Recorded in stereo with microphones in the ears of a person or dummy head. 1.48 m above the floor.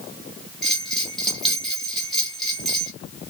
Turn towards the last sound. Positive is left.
turn(degrees=5)  # may be behind; listen again after turning